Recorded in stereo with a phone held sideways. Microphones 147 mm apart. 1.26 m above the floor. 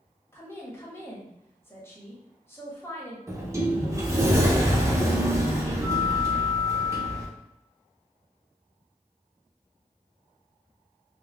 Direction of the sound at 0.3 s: 15° left (ahead or behind).